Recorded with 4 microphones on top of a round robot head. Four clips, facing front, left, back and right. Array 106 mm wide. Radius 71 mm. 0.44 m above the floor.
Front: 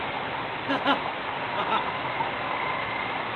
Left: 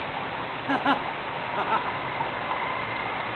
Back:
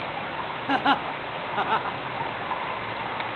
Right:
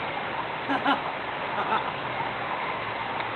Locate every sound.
0.7 s laughter: 170° left, 1.0 m